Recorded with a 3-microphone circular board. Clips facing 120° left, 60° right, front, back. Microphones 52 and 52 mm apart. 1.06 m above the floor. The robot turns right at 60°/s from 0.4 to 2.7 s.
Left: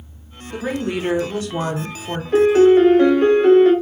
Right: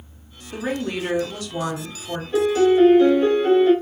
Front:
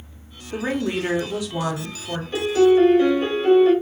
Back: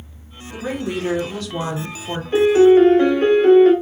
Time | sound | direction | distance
0.5 | a woman speaking | 20° left | 0.9 m
2.3 | a piano | 120° left | 0.7 m